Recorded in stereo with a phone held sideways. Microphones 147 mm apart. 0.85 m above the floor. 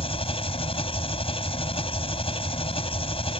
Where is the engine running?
40° left (ahead or behind).